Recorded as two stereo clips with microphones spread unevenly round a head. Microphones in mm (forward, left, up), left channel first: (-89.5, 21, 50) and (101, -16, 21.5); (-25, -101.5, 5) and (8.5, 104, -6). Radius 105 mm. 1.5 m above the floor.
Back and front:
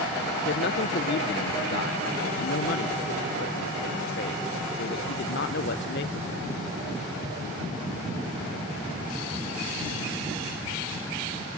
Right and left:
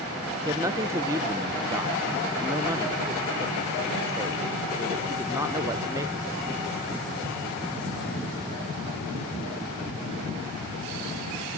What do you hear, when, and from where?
0.5 s a man speaking: 155° left, 0.7 m